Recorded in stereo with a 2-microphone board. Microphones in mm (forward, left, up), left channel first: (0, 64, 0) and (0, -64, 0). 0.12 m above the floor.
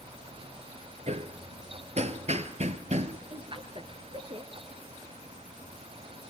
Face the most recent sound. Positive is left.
turn(degrees=-45)  # may be behind; listen again after turning